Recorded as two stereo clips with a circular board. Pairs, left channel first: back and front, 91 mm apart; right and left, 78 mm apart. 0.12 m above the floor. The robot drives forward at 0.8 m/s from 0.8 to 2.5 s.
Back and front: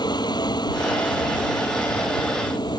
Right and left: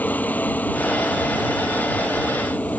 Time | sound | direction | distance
0.0 | a helicopter | 155° right | ?